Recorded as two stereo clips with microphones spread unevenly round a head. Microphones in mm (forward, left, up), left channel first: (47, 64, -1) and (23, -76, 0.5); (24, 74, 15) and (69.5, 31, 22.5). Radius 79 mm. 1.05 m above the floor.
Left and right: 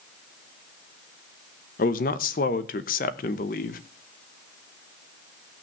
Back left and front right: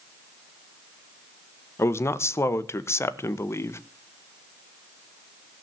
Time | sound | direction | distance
1.8 | a man speaking | 105° left | 1.0 m